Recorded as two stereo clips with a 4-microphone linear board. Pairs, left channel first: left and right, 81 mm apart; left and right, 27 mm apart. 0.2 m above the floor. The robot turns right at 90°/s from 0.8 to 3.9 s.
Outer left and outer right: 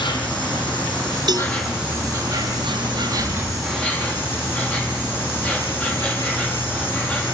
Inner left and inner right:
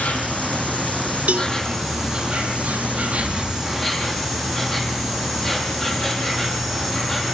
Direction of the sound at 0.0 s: 100° left.